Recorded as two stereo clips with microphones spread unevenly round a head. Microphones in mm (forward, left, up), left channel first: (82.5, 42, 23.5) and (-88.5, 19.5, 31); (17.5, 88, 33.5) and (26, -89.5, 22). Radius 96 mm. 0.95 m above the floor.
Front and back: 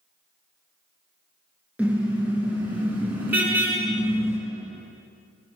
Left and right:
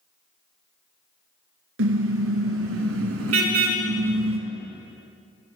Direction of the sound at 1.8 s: 90° right.